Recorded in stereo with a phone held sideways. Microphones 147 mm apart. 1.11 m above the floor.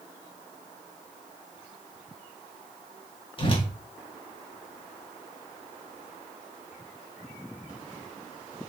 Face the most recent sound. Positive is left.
turn(degrees=35)  # may be behind; listen again after turning